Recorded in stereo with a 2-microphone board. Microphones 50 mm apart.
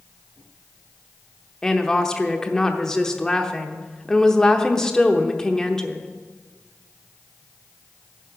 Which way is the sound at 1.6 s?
10° left (ahead or behind).